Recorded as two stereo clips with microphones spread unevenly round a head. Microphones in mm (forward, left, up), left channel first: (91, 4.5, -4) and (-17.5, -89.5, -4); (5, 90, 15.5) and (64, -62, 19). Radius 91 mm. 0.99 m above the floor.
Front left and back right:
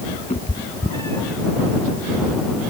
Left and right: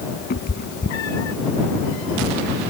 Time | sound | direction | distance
0.3 | a cat meowing | 90° left | ?